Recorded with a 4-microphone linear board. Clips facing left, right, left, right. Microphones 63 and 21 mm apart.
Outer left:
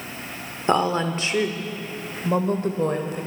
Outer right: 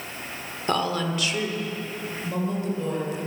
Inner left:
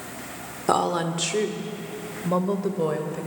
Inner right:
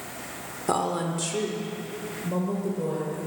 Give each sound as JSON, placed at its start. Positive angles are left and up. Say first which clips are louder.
{"t": 0.7, "sound": "a woman speaking", "louder": "outer left 4 dB, inner left 4 dB", "side_deg": 20, "distance_m": 1.2}